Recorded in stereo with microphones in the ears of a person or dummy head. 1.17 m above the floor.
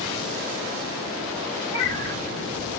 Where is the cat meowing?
25° left (ahead or behind), 1.2 m.